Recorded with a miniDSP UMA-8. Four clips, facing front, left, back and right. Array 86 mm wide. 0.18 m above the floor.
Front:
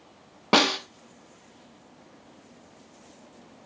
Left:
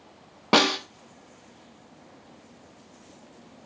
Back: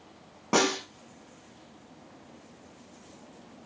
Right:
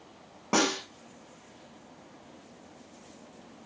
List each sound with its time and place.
0.5 s a snare drum: 45° left, 1.1 m